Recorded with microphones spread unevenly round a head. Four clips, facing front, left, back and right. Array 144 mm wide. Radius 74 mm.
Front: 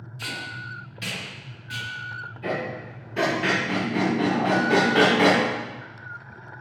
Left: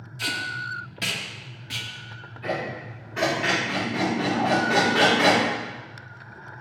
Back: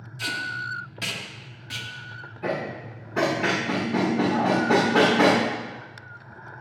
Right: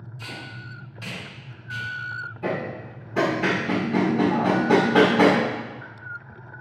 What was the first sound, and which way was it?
Tape being pulled, 120° left.